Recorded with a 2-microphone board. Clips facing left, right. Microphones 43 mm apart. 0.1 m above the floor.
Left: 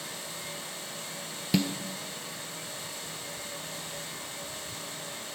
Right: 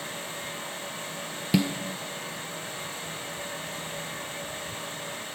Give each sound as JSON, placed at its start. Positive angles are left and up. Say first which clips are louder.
{"t": 1.5, "sound": "a snare drum", "louder": "right 3 dB", "side_deg": -10, "distance_m": 0.9}